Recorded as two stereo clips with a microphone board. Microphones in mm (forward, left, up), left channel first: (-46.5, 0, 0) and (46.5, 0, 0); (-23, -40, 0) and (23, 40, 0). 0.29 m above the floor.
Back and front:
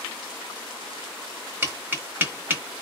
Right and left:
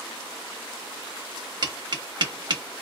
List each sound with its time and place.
1.6 s tapping: 65° left, 0.9 m